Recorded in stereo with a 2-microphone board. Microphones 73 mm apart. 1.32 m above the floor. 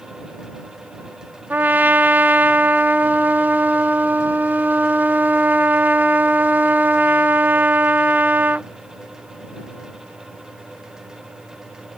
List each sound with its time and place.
1.5 s a trumpet: 25° right (ahead or behind)